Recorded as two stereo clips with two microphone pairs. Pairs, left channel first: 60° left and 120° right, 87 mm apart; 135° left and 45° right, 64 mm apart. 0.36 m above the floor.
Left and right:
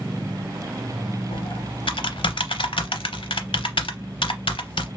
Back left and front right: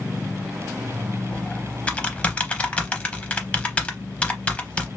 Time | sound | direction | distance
1.3 | typing on a keyboard | 60° left | 0.6 m